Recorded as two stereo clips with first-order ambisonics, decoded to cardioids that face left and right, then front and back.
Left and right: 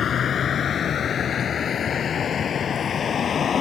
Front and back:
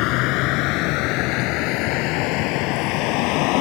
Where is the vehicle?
25° left.